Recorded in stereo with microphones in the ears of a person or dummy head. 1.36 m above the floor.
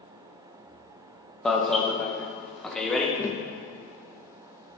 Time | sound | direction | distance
1.4 | an alarm | 5° left (ahead or behind) | 1.0 m
3.2 | tapping | 15° left (ahead or behind) | 0.5 m